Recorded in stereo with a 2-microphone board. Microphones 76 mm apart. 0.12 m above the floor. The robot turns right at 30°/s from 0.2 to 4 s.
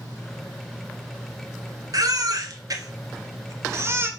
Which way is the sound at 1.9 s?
50° right (ahead or behind).